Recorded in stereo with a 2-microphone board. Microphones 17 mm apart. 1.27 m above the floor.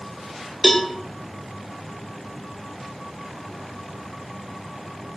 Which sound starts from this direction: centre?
A cowbell, at 0.6 s.